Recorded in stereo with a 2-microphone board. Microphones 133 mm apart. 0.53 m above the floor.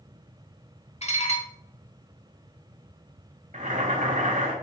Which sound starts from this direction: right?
Boiling, at 3.5 s.